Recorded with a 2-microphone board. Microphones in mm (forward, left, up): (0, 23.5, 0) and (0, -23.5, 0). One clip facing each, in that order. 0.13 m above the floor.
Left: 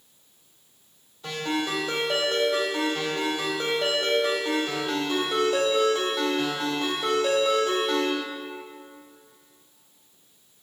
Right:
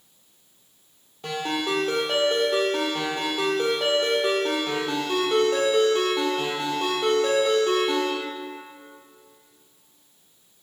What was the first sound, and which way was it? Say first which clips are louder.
A ringtone: right 1 dB; 65° right (ahead or behind).